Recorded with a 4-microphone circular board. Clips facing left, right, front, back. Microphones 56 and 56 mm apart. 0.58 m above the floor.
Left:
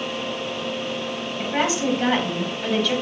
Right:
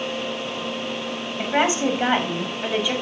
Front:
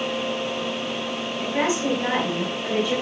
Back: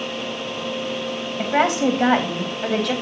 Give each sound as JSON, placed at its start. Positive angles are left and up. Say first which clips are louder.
{"t": 1.4, "sound": "a woman speaking", "louder": "right 2 dB, back 5 dB", "azimuth_deg": -155, "distance_m": 3.5}